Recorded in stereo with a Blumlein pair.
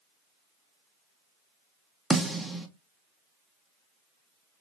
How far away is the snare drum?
About 0.9 m.